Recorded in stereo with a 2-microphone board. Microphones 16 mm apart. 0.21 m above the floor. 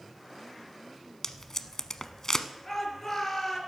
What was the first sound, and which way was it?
Tape being pulled, 40° left (ahead or behind).